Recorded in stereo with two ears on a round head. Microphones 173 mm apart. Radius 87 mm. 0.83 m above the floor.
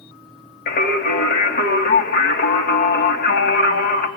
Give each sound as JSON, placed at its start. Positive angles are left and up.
{"t": 0.7, "sound": "singing", "side_deg": 45, "distance_m": 2.5}